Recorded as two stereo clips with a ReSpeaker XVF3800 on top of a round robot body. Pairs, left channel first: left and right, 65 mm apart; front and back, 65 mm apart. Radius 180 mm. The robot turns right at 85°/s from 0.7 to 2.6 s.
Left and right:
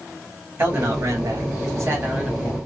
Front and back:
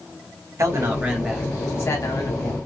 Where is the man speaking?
140° right, 2.5 m; by 2.6 s 20° left, 2.5 m.